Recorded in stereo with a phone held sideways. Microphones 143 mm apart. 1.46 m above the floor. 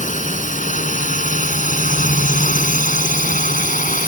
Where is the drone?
65° left (ahead or behind); by 4.1 s 70° left (ahead or behind).